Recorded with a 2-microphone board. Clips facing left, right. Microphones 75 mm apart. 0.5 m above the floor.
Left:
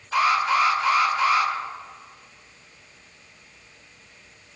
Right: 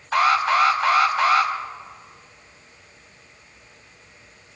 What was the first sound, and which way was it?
An alarm, 60° right (ahead or behind).